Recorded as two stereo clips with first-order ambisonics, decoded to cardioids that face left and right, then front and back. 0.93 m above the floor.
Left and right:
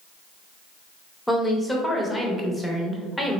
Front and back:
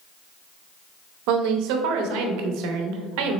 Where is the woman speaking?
175° left, 0.6 m.